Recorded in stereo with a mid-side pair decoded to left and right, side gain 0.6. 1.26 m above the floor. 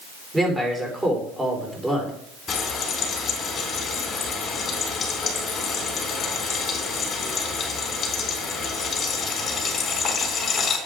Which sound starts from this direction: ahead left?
Frying, at 2.5 s.